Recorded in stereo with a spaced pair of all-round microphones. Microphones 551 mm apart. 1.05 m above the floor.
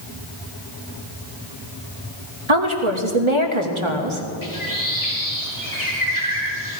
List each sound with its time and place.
2.5 s a woman speaking: 60° right (ahead or behind), 1.9 m
4.4 s a bird: 35° left (ahead or behind), 3.5 m